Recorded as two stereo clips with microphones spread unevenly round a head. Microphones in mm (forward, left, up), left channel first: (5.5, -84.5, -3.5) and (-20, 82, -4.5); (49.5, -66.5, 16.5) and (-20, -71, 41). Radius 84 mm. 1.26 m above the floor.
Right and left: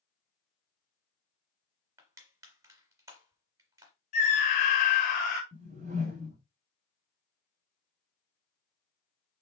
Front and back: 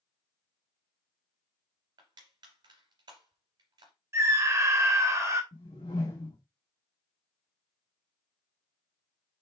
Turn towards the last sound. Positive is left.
turn(degrees=50)